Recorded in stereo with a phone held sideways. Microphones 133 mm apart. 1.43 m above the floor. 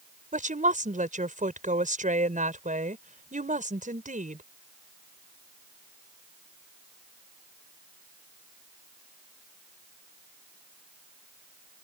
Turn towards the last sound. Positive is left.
turn(degrees=-80)